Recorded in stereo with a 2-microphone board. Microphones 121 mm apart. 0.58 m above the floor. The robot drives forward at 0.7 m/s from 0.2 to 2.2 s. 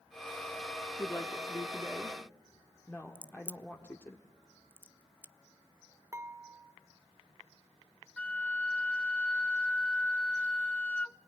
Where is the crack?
15° right (ahead or behind), 0.7 m.